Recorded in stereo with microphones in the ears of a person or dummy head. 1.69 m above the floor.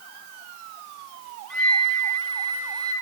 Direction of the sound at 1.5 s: 5° left (ahead or behind).